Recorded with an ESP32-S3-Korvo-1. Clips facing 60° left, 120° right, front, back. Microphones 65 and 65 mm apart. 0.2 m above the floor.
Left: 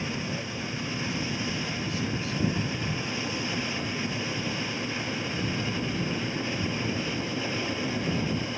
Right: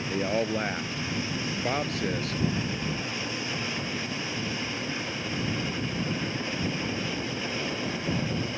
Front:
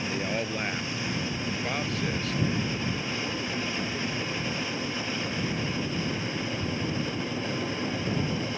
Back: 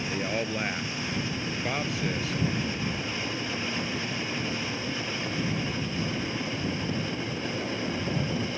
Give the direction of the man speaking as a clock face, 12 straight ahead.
3 o'clock.